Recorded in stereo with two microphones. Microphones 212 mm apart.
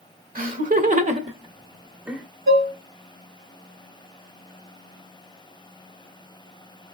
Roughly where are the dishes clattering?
Right.